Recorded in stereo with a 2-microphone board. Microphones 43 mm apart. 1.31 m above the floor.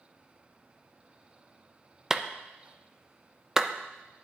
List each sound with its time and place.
2.1 s a clap: 10° right (ahead or behind), 0.5 m